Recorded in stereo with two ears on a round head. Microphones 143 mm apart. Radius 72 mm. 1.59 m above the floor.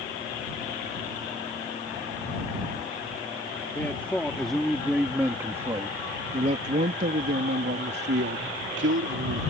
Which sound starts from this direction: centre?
A man speaking, at 3.8 s.